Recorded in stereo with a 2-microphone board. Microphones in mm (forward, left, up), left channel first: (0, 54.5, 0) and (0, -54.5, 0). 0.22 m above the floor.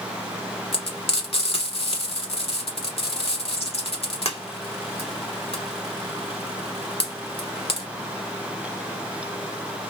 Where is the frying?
60° left (ahead or behind), 1.2 m.